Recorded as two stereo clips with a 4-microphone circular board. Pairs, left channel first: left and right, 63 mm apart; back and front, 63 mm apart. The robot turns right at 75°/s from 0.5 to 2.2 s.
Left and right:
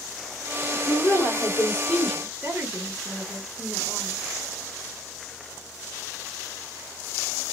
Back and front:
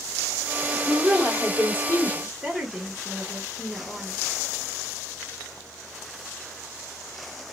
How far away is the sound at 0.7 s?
About 1.8 m.